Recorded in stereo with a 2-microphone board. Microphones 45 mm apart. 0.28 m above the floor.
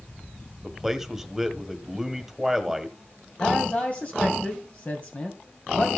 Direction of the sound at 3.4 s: 35° left (ahead or behind).